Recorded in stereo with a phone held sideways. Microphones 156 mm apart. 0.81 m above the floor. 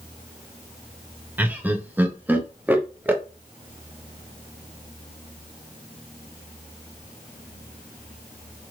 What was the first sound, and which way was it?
Laughter, 10° right (ahead or behind).